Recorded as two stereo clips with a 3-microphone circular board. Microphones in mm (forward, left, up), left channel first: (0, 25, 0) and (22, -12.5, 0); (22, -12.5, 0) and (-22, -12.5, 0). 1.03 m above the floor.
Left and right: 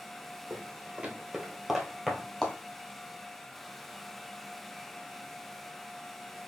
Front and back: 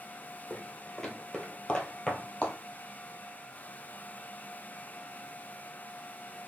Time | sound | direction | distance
0.5 | footsteps | 90° right | 1.2 m